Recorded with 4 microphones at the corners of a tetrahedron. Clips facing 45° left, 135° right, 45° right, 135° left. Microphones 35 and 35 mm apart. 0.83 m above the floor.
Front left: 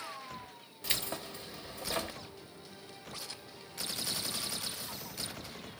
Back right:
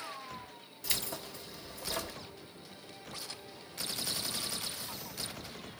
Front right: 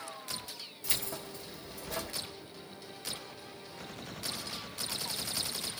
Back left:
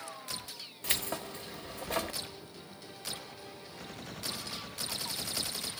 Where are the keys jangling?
95° left, 1.2 m.